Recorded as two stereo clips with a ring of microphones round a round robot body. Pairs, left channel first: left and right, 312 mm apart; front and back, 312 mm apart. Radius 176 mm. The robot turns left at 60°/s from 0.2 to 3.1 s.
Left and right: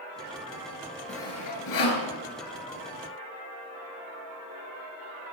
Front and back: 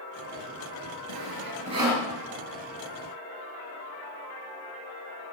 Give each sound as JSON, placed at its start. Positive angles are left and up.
{"t": 1.1, "sound": "sawing", "azimuth_deg": 145, "distance_m": 4.5}